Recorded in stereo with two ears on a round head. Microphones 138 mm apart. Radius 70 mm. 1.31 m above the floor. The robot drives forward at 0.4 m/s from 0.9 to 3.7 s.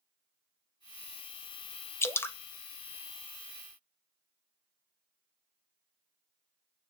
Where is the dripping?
15° left (ahead or behind), 0.9 m.